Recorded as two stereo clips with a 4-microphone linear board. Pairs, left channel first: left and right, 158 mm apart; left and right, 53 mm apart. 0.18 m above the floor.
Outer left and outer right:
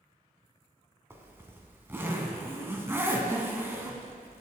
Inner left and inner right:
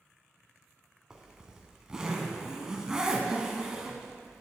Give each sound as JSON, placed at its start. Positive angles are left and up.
{"t": 1.1, "sound": "a zipper", "side_deg": -15, "distance_m": 1.0}